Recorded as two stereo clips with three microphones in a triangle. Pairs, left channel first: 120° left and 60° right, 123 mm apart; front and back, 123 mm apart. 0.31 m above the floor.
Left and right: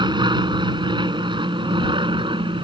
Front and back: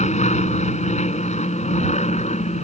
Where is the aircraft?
10° right; by 2.6 s 15° right.